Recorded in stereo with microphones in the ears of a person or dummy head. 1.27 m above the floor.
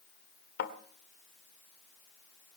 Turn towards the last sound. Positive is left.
turn(degrees=65)  # may be behind; listen again after turning